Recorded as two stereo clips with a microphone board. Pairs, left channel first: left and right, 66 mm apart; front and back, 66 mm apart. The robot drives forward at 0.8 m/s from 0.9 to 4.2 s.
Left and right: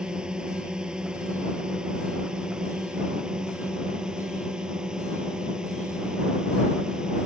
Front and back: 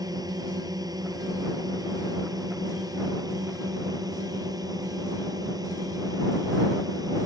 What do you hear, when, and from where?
0.0 s a drone: 165° right